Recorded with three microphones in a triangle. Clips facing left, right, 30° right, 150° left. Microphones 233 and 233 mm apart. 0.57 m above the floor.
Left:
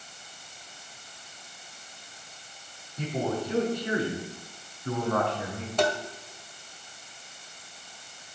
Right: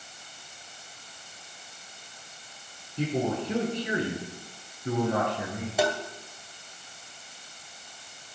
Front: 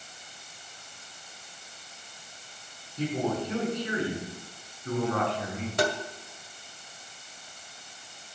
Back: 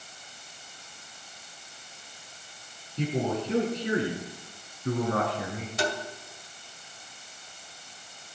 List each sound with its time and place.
3.0 s a man speaking: 150° right, 6.5 m; by 5.7 s 165° right, 5 m
5.8 s tapping: 10° right, 1.9 m